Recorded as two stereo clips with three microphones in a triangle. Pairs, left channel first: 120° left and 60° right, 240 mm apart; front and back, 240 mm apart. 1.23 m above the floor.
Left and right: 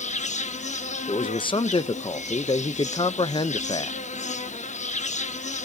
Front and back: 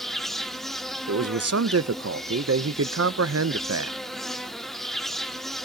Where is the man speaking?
175° right, 0.6 m.